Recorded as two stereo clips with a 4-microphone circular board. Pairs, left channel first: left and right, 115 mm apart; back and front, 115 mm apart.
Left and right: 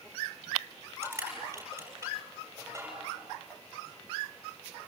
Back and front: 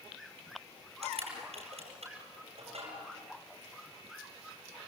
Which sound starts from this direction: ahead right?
Crushing, at 1.0 s.